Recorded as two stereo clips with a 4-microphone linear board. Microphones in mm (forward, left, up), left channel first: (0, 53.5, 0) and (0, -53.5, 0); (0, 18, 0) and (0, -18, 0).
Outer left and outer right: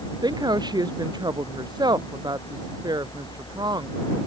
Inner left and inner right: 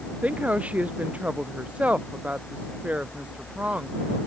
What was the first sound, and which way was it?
A woman speaking, 40° right (ahead or behind).